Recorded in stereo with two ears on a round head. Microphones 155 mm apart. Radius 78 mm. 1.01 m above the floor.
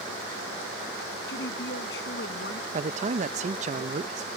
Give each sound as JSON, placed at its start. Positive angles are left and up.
{"t": 1.3, "sound": "a woman speaking", "side_deg": 65}
{"t": 2.7, "sound": "a man speaking", "side_deg": -40}